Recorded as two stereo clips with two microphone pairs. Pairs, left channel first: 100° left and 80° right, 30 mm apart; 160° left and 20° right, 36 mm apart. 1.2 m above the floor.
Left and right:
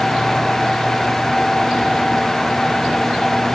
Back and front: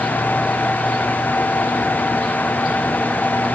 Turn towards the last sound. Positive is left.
No sound to turn to.